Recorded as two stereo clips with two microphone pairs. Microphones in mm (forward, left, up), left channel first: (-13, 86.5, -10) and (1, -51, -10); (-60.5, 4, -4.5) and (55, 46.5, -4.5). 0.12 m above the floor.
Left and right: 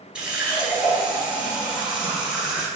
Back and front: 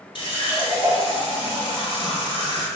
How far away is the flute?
I don't hear a flute.